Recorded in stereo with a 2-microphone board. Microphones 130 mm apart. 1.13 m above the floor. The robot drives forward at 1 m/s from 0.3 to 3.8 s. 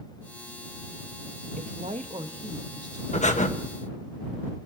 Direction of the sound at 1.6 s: 75° right (ahead or behind).